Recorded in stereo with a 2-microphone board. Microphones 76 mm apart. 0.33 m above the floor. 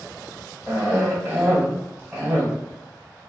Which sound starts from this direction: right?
A cough, at 0.7 s.